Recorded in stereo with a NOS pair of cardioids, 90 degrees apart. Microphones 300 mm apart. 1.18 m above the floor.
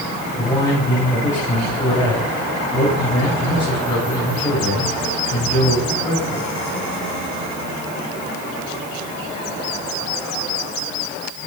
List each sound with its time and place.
0.4 s a man speaking: 10° left, 7 m